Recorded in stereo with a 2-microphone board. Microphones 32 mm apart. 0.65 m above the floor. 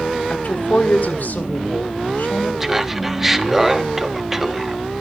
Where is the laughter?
10° right (ahead or behind), 0.9 m.